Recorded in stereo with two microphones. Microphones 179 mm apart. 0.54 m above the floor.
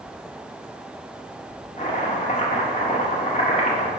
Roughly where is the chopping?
Left.